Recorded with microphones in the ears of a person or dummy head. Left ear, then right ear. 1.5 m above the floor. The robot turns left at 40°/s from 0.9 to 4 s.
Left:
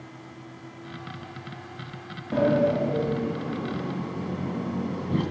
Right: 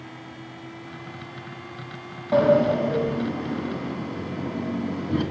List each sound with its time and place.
2.3 s a sliding door: 110° right, 2.5 m; by 5.2 s straight behind, 2.5 m